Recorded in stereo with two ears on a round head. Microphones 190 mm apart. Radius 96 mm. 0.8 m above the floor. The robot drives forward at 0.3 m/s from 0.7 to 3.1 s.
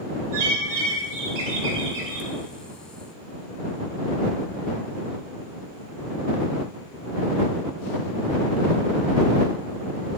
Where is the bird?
75° right (ahead or behind), 0.8 m; by 2.3 s 55° right (ahead or behind), 1.0 m.